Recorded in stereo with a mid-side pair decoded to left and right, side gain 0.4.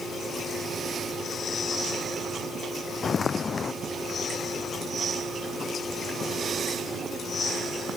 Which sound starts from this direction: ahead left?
Footsteps, at 3.0 s.